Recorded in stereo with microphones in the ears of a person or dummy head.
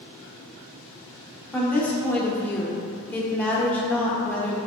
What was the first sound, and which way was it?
A woman speaking, 15° left (ahead or behind).